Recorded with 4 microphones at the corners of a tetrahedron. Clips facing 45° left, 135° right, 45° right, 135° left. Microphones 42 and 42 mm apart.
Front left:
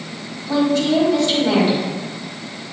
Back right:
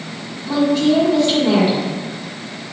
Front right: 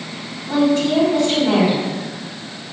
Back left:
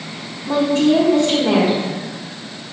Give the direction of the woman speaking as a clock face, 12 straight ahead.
7 o'clock.